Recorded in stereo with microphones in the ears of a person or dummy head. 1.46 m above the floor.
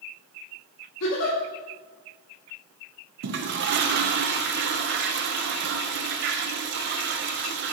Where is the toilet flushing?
55° right (ahead or behind), 0.6 m.